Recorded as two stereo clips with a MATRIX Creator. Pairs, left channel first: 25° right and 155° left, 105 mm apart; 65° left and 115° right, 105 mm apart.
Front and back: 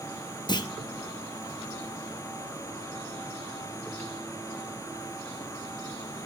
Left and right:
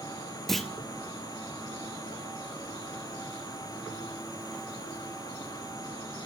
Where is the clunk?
20° right, 0.7 m.